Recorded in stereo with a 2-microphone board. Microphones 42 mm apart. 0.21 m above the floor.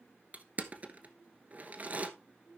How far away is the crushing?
About 1.1 m.